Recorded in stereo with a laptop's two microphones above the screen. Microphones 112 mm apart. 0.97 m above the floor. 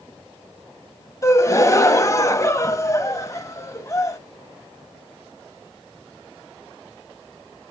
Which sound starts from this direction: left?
A gasp, at 1.2 s.